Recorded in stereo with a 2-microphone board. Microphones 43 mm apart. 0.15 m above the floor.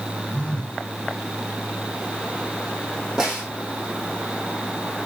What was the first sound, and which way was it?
A phone buzzing, 20° left (ahead or behind).